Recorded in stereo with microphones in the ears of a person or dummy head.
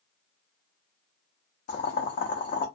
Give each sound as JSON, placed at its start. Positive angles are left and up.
{"t": 1.7, "sound": "boiling", "side_deg": 35, "distance_m": 0.7}